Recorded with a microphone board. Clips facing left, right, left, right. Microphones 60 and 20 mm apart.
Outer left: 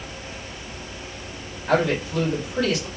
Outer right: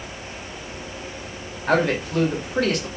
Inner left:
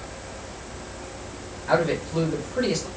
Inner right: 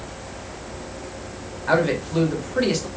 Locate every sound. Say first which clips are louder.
1.7 s a man speaking: outer right 1 dB, inner right 2 dB; 60° right (ahead or behind), 1.8 m